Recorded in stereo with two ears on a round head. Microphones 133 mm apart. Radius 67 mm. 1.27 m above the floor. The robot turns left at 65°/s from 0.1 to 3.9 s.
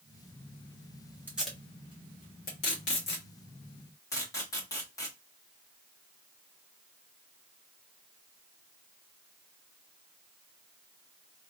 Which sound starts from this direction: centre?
Tape being pulled, at 1.3 s.